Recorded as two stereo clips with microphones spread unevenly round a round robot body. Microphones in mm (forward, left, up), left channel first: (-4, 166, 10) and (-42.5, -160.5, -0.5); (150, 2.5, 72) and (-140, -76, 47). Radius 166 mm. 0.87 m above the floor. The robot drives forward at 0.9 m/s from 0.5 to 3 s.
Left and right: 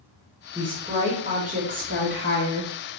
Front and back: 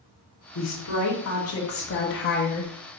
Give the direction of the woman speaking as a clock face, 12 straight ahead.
1 o'clock.